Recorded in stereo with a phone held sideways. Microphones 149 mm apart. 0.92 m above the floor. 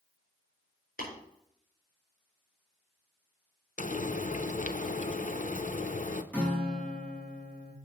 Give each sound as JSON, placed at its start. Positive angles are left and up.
{"t": 1.0, "sound": "tapping", "side_deg": 70, "distance_m": 4.5}
{"t": 3.8, "sound": "frying", "side_deg": 60, "distance_m": 0.6}
{"t": 6.3, "sound": "a guitar", "side_deg": 10, "distance_m": 1.8}